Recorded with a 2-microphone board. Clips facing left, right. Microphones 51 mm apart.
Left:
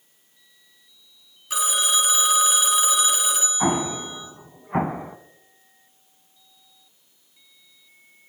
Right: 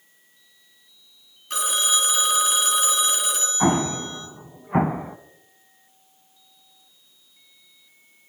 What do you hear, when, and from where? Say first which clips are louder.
1.5 s a phone ringing: left 1 dB; 5° left (ahead or behind), 1.7 m
3.6 s an explosion: right 3 dB; 5° right (ahead or behind), 0.8 m